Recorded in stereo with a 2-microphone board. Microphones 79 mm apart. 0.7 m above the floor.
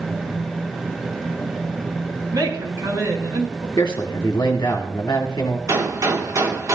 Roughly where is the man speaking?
Left.